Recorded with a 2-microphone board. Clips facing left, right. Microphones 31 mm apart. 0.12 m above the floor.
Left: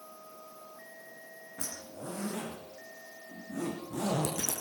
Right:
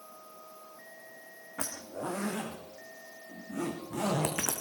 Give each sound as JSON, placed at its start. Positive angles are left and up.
{"t": 1.6, "sound": "a zipper", "side_deg": -80, "distance_m": 4.0}